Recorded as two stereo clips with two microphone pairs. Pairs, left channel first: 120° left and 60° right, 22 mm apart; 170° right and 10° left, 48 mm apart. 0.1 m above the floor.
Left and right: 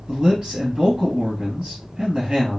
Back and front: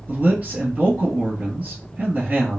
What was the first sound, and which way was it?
A man speaking, 35° right.